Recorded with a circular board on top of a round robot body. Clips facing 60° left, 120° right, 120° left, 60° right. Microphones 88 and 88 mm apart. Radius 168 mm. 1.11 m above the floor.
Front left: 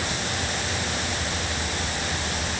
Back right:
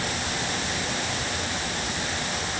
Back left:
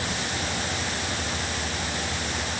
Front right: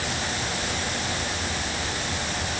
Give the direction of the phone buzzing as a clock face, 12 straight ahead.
No phone buzzing in this recording.